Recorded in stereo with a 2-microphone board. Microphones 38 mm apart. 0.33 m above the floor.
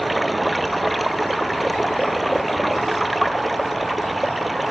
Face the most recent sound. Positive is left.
turn(degrees=0)  # may be behind; listen again after turning